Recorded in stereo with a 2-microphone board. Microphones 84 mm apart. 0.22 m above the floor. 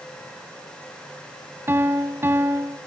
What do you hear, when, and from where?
1.7 s a piano: 30° right (ahead or behind), 1.4 m